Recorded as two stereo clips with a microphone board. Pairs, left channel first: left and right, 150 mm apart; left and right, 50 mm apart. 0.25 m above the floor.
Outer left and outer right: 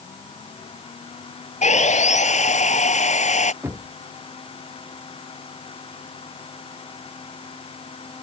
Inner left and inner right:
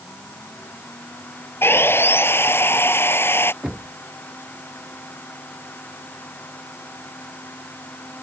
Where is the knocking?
15° right (ahead or behind).